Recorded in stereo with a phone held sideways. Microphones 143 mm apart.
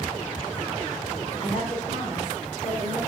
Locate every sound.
1.4 s a woman speaking: 50° left (ahead or behind), 1.3 m